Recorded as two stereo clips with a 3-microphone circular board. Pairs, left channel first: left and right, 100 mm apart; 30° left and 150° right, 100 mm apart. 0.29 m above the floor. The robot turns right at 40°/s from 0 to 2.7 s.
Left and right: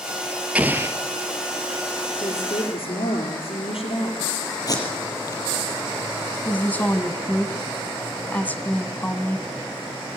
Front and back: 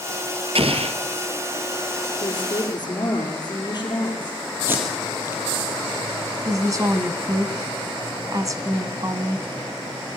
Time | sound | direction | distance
0.6 | an explosion | 165° right | 1.3 m
2.2 | a woman speaking | 60° left | 5.5 m
4.7 | tape being pulled | 140° left | 5 m
6.5 | a woman speaking | 160° left | 2.5 m